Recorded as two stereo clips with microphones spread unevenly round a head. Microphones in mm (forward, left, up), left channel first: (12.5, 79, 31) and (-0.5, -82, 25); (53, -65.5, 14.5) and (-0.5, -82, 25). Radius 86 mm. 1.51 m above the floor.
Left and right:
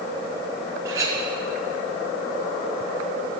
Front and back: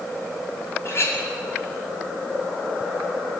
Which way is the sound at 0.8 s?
20° right.